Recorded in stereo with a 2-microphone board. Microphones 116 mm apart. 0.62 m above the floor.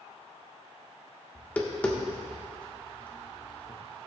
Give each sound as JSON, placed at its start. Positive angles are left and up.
{"t": 1.4, "sound": "tapping", "side_deg": 15, "distance_m": 1.1}